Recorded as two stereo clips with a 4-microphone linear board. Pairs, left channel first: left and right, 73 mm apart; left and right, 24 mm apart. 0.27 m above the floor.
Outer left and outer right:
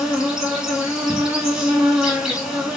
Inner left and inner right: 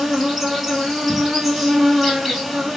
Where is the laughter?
No laughter in this recording.